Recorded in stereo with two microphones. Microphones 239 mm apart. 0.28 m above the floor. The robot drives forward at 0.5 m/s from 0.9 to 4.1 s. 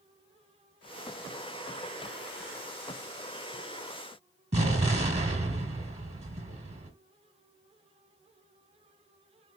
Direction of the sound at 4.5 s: 30° right (ahead or behind).